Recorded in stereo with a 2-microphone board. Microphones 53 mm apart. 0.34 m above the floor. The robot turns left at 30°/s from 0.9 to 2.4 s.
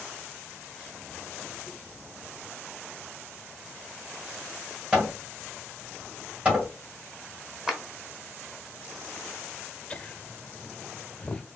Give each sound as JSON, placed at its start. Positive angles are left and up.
{"t": 4.9, "sound": "hammering", "side_deg": -20, "distance_m": 2.5}
{"t": 7.7, "sound": "a clap", "side_deg": -5, "distance_m": 0.9}
{"t": 9.9, "sound": "laughter", "side_deg": 20, "distance_m": 0.8}